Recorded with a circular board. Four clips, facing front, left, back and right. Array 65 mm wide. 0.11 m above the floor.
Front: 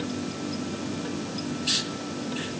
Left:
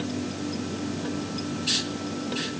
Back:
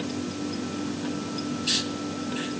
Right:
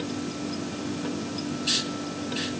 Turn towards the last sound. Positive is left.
No sound to turn to.